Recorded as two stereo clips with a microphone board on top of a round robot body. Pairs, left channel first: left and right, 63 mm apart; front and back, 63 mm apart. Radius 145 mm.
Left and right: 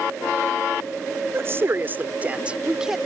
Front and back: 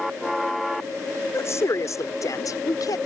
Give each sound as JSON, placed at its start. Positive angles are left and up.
{"t": 1.3, "sound": "a woman speaking", "azimuth_deg": -40}